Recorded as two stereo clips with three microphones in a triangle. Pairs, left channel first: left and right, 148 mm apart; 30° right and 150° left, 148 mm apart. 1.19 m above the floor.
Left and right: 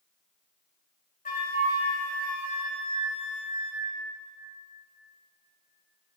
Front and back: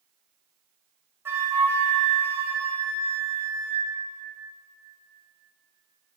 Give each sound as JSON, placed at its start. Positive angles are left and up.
{"t": 1.2, "sound": "a flute", "azimuth_deg": 75, "distance_m": 2.0}